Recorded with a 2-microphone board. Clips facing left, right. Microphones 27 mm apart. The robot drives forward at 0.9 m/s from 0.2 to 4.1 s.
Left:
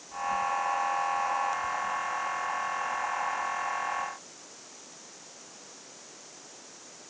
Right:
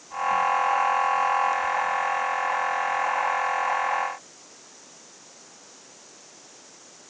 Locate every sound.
Only background noise.